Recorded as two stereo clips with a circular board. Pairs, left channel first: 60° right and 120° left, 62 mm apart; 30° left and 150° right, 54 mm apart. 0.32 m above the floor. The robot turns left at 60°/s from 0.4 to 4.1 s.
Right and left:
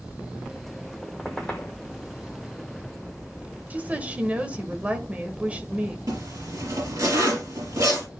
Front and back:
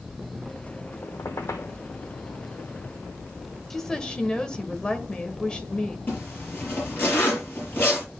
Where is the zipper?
90° left, 5.5 m.